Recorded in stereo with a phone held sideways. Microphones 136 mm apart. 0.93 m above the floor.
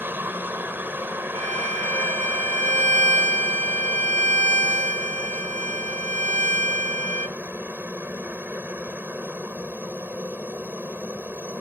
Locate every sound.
0.0 s a helicopter: 15° right (ahead or behind)
1.4 s a violin: 65° right (ahead or behind)